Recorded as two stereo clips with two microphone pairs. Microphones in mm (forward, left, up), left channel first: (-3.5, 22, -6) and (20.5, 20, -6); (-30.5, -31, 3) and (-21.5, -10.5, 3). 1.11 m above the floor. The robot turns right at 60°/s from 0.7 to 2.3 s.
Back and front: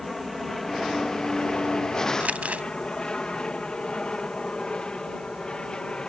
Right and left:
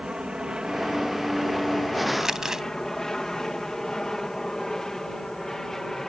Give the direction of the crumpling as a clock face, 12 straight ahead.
12 o'clock.